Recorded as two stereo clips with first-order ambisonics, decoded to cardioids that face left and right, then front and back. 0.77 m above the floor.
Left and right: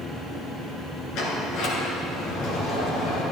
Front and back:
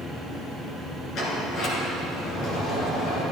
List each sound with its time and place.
1.1 s a sliding door: 50° left, 2 m